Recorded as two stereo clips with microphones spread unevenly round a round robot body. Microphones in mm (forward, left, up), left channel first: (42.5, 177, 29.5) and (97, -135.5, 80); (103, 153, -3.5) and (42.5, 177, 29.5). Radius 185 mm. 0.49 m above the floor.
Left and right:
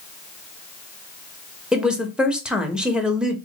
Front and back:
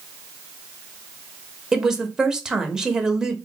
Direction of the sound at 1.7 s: 25° left.